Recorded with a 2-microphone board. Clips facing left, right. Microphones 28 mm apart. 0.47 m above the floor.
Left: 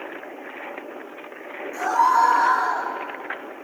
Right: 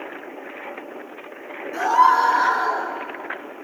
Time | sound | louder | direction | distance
1.7 | a scream | right 3 dB | 50° right (ahead or behind) | 9 m